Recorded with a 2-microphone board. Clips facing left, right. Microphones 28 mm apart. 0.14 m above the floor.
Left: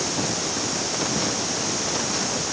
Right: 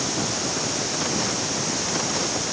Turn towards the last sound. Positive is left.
No sound to turn to.